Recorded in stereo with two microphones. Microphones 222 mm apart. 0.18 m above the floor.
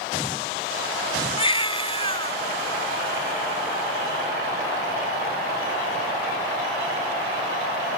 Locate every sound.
1.4 s a baby crying: 25° left (ahead or behind)